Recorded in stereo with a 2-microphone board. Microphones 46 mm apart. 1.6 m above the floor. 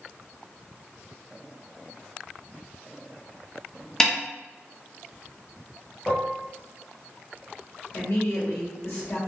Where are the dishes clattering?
15° left (ahead or behind), 0.8 m.